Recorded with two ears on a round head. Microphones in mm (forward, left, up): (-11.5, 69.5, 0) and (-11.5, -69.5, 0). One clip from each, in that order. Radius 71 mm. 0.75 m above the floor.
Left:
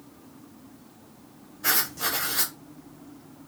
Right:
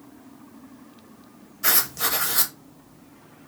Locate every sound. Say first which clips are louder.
1.6 s writing: right 2 dB; 50° right (ahead or behind), 0.7 m